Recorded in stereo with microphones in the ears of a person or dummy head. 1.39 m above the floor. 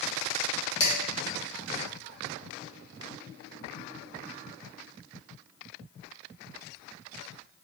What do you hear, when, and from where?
0.8 s dishes clattering: 65° left (ahead or behind), 1.7 m